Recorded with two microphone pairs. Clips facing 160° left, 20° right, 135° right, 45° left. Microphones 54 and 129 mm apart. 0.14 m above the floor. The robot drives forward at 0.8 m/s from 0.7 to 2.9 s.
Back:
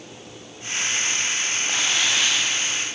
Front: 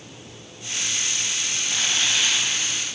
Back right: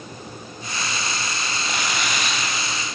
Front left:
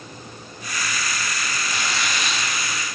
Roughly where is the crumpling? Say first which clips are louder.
Back 1 dB, back right 2 dB; behind.